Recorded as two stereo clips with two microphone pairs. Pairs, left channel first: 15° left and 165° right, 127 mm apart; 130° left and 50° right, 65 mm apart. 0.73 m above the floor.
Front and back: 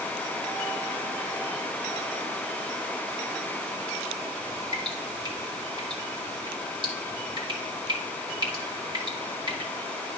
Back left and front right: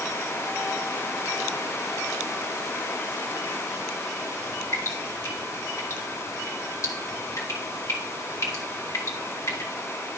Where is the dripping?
155° left, 2 m.